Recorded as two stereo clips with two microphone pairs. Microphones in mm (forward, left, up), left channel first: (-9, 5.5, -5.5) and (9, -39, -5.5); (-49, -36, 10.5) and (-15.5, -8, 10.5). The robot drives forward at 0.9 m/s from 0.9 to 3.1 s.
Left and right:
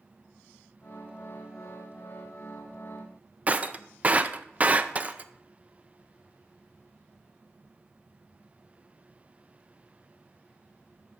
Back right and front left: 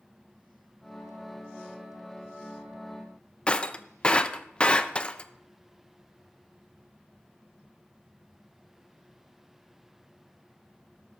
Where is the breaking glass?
100° right, 0.5 m.